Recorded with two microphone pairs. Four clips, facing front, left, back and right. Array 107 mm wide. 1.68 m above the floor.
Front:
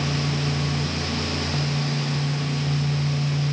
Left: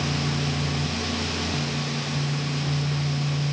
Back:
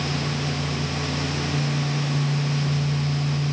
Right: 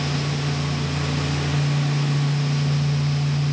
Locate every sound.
Only background noise.